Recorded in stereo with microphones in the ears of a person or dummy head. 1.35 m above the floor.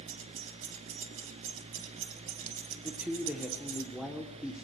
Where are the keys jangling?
80° right, 1.6 m.